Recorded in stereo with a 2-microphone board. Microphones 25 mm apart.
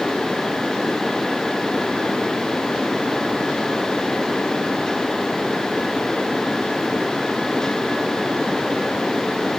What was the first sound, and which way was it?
Only background noise.